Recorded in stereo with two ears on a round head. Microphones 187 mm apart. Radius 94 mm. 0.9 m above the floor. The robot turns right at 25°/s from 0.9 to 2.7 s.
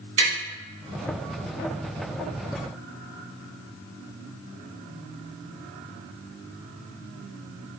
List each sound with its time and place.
0.2 s tapping: 60° right (ahead or behind), 1.9 m